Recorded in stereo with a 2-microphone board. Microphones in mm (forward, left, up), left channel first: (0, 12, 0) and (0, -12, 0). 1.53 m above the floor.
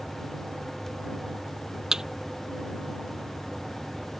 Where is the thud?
25° right (ahead or behind).